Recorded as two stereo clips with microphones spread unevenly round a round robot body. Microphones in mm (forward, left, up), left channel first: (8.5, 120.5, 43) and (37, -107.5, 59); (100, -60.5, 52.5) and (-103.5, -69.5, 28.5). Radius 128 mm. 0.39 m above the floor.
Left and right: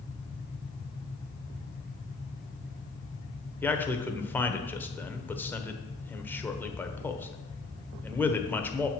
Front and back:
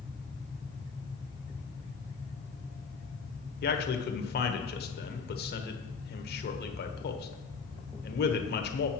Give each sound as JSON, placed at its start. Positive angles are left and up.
{"t": 3.6, "sound": "a man speaking", "azimuth_deg": 20, "distance_m": 1.2}